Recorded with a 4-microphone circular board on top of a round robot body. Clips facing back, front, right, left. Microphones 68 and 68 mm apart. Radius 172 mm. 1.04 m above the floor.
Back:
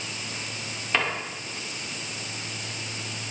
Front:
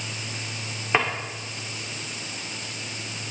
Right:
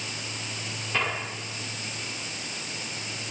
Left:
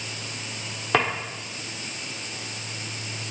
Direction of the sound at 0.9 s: 70° left.